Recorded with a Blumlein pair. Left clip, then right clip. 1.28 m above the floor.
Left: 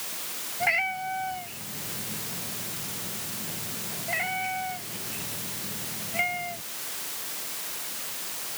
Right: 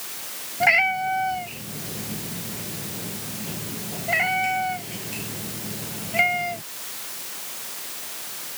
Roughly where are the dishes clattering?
I don't hear dishes clattering.